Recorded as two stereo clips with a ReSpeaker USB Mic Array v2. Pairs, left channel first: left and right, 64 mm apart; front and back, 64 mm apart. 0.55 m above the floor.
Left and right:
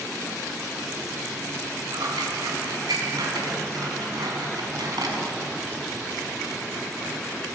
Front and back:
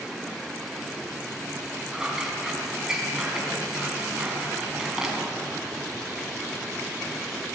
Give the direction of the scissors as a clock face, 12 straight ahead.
3 o'clock.